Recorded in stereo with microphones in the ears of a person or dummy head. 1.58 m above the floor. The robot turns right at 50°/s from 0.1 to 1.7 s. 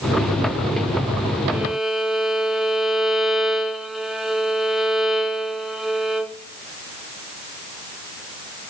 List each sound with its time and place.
1.5 s a violin: 10° right (ahead or behind), 0.6 m; by 6.3 s 5° right (ahead or behind), 0.6 m